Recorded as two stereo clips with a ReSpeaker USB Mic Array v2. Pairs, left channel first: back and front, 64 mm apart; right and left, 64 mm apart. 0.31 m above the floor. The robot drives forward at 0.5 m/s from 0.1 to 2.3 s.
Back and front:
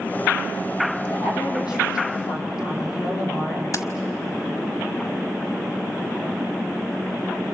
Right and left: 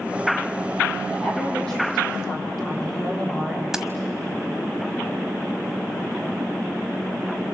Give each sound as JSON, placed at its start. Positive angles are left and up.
{"t": 1.1, "sound": "a woman speaking", "azimuth_deg": -170, "distance_m": 9.0}
{"t": 3.7, "sound": "keys jangling", "azimuth_deg": 170, "distance_m": 1.1}